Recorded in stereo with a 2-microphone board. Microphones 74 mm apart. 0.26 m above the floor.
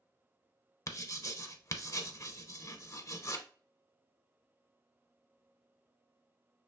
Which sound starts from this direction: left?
Writing, at 0.9 s.